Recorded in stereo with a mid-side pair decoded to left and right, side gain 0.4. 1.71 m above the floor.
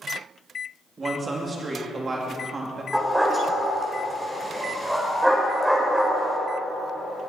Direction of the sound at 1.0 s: 35° right.